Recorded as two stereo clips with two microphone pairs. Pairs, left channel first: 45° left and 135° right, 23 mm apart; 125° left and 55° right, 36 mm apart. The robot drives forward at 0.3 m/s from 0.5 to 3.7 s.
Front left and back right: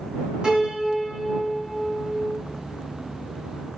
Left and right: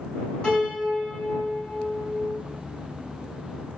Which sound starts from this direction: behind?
A piano, at 0.4 s.